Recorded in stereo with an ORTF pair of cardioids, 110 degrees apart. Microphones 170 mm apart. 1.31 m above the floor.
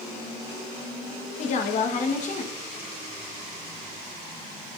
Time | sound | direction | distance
1.4 | a woman speaking | 45° left | 1.7 m